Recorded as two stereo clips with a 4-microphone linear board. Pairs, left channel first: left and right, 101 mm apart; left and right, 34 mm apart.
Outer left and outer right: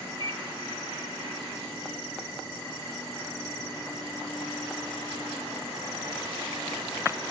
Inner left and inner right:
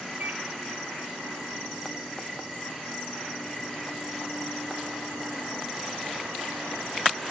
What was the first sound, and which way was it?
A microwave, 45° right (ahead or behind).